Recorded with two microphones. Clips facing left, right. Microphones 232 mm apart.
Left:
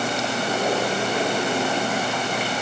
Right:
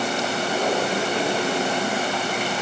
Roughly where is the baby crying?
I don't hear a baby crying.